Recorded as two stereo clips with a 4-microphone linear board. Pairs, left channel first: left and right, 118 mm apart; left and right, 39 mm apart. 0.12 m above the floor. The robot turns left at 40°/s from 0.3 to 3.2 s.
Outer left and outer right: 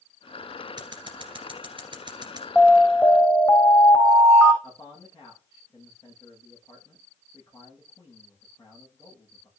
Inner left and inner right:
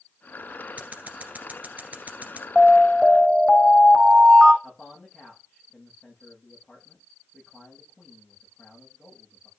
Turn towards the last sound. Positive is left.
turn(degrees=30)  # may be behind; listen again after turning